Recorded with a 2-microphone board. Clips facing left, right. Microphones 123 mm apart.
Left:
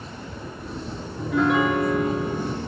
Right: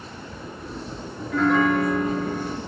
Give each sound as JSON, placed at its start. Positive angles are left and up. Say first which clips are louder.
{"t": 1.2, "sound": "a piano", "louder": "even", "side_deg": 10, "distance_m": 0.6}